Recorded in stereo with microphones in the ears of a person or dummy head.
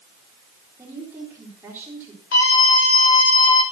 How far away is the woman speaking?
About 3.5 m.